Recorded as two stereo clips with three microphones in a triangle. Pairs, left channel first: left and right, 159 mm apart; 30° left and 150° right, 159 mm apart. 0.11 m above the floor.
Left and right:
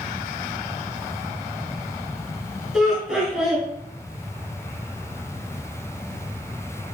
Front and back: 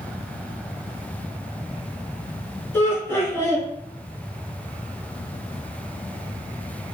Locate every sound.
2.7 s laughter: 15° right, 1.3 m